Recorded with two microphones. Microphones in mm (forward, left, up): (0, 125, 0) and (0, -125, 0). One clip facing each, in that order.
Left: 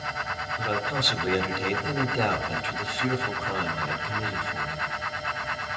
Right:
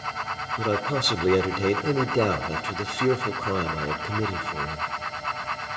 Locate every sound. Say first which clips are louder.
0.6 s a man speaking: right 5 dB; 50° right (ahead or behind), 1.6 m